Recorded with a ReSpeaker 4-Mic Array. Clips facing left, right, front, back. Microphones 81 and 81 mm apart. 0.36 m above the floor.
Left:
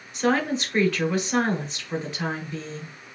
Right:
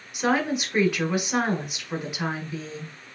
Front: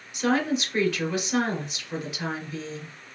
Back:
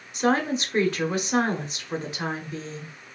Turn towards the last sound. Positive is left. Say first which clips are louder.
# left 1 dB, back 1 dB
turn(degrees=-160)